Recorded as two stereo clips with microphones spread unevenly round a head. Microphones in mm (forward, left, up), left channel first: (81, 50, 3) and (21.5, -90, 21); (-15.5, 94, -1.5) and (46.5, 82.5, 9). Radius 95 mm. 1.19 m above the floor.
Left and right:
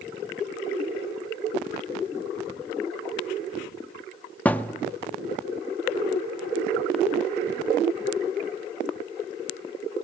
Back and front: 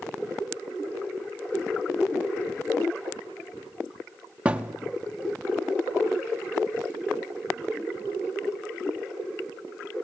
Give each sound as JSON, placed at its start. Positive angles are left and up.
{"t": 4.5, "sound": "a thud", "azimuth_deg": -15, "distance_m": 0.6}